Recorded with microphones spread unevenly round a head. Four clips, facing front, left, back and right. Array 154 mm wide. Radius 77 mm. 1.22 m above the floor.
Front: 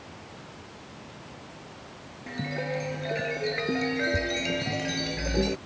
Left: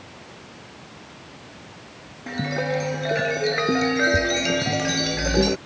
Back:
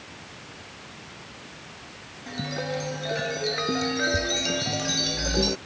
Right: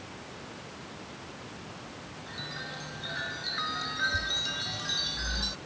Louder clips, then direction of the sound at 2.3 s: Left 19 dB, back 1 dB; 90° left.